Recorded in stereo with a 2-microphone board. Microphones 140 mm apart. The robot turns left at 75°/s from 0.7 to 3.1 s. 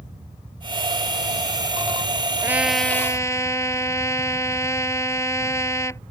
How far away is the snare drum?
No snare drum in this recording.